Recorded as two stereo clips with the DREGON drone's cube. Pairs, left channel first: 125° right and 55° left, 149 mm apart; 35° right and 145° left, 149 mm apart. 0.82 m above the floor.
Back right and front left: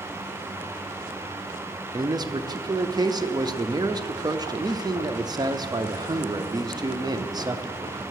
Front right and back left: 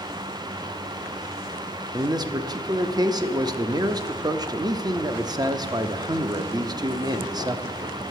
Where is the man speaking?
100° left, 0.5 m.